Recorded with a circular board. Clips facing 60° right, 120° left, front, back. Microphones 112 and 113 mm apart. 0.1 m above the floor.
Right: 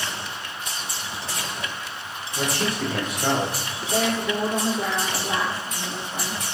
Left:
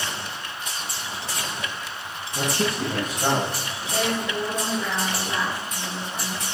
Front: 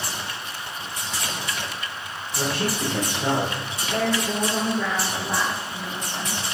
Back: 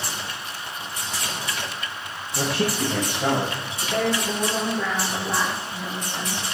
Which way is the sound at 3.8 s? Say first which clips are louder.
Right 2 dB, even; 115° right.